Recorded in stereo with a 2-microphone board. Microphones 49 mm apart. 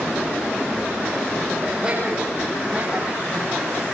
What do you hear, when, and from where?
1.6 s laughter: 20° right (ahead or behind), 8.5 m; by 3.9 s 35° right (ahead or behind), 7 m